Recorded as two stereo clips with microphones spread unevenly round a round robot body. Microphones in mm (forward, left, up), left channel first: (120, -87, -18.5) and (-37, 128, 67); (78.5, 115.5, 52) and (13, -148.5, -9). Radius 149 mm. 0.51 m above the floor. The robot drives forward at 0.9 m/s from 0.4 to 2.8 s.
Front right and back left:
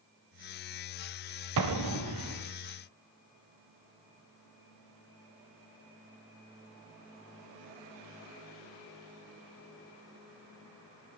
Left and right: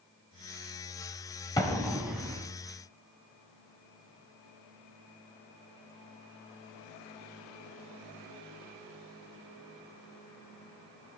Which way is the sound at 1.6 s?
155° left.